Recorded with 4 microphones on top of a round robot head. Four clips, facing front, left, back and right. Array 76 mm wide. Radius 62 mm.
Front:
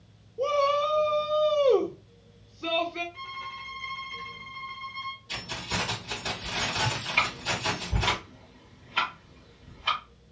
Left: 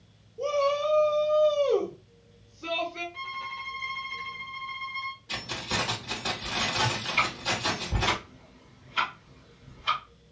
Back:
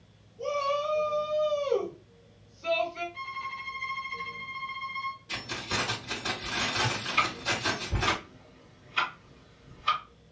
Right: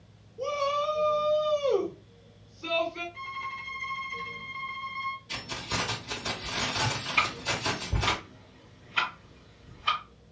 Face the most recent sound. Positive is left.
turn(degrees=-10)